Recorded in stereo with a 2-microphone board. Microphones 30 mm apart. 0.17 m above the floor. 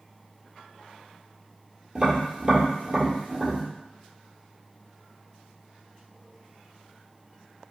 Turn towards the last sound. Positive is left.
turn(degrees=-35)  # may be behind; listen again after turning